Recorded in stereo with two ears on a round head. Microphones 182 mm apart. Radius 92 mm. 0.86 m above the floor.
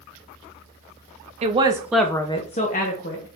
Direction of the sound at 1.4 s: 30° right (ahead or behind).